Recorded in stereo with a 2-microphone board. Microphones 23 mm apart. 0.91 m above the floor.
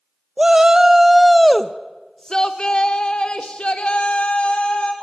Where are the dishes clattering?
I don't hear dishes clattering.